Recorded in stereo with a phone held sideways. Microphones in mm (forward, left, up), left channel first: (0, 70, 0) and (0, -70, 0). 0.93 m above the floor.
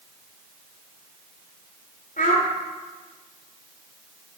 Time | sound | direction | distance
2.2 | a child speaking | 85° left | 1.2 m